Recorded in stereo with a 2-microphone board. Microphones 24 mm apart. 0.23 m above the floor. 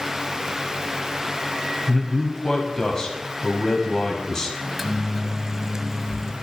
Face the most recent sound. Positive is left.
turn(degrees=0)  # may be behind; listen again after turning